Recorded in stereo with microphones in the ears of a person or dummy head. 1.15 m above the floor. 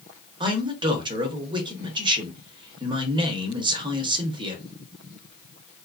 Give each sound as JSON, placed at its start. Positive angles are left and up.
{"t": 0.4, "sound": "a man speaking", "side_deg": -30, "distance_m": 0.7}